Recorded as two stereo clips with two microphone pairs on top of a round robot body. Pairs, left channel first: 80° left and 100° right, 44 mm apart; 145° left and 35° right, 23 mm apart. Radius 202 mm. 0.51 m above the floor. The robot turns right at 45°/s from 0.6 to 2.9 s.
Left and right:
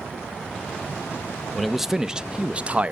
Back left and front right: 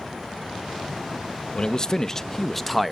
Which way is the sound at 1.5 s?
175° left.